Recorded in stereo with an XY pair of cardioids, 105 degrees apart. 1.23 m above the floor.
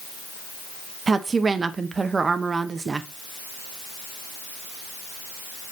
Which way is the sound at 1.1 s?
30° right.